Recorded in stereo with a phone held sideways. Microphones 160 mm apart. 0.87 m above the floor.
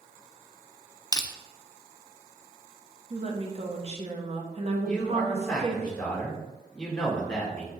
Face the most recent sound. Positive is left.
turn(degrees=5)  # may be behind; listen again after turning